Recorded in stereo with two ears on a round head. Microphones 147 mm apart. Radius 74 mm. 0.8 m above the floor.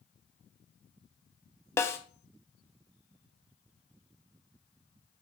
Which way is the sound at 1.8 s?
15° left (ahead or behind).